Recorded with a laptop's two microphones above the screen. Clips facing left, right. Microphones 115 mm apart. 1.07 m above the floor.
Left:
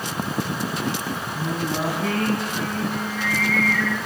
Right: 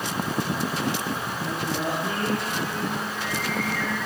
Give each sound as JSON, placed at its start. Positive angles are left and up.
{"t": 1.4, "sound": "singing", "side_deg": 80, "distance_m": 8.0}